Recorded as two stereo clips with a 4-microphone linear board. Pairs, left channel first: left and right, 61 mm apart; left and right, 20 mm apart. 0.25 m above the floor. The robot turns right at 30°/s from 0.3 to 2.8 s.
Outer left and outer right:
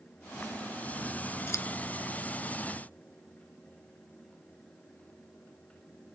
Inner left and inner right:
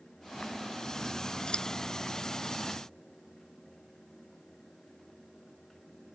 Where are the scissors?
50° left (ahead or behind); by 1.7 s 55° left (ahead or behind).